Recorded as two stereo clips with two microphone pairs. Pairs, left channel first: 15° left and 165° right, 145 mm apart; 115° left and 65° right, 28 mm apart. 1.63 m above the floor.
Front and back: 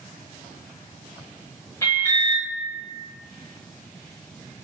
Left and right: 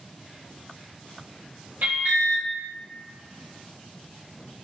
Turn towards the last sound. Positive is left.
turn(degrees=-55)